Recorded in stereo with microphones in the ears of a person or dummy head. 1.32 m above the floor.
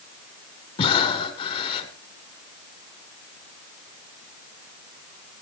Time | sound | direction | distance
0.8 | breathing | 30° left (ahead or behind) | 2.5 m